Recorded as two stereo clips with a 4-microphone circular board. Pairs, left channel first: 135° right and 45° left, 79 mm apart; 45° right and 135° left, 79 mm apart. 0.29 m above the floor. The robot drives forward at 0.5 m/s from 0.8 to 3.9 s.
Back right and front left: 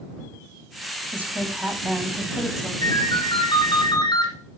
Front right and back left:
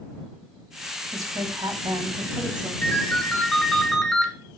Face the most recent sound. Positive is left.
turn(degrees=-135)